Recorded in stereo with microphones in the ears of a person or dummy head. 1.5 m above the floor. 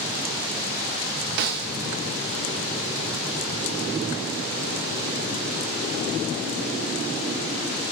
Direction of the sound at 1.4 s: 50° right (ahead or behind).